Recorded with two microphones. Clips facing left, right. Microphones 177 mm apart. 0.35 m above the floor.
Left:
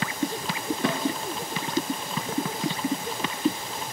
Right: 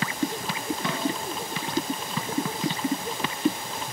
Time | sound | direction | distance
0.8 | a snare drum | 70° left (ahead or behind) | 1.6 m